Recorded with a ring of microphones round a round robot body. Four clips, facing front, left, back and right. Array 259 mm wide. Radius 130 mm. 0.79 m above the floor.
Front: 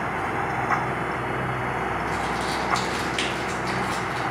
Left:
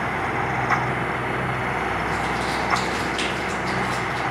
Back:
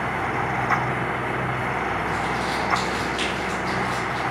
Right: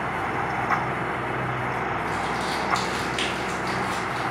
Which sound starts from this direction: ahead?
Crumpling, at 2.1 s.